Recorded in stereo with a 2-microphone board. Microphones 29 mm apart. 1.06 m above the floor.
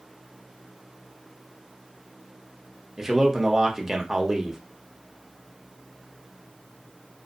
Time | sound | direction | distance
3.0 | a man speaking | 15° right (ahead or behind) | 0.7 m